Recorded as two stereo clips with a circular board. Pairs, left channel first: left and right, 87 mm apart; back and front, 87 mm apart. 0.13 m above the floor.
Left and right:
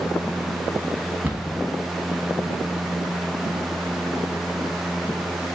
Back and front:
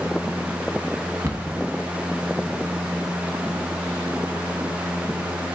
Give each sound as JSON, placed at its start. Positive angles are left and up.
{"t": 1.2, "sound": "a cupboard door", "azimuth_deg": -40, "distance_m": 0.8}